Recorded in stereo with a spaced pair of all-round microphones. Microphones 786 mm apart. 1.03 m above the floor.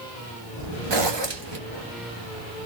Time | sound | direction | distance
0.9 | a zipper | 35° right (ahead or behind) | 1.3 m